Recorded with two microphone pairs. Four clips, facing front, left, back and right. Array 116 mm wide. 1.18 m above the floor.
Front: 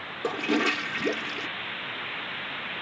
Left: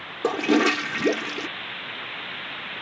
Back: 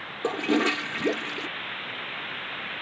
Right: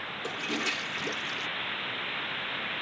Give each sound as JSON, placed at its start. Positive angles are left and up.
{"t": 0.2, "sound": "a toilet flushing", "azimuth_deg": 105}